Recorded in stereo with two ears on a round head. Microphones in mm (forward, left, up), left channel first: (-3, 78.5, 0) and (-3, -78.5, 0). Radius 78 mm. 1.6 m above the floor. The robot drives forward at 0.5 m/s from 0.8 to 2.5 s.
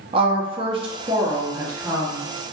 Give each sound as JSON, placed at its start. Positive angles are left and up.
{"t": 0.1, "sound": "a woman speaking", "side_deg": -30, "distance_m": 0.6}